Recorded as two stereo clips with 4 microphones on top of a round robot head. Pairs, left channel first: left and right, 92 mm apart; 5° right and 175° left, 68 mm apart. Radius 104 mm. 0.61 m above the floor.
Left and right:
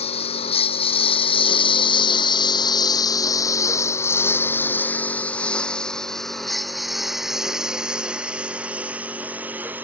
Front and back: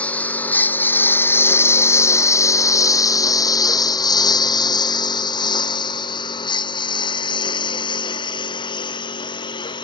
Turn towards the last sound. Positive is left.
turn(degrees=-15)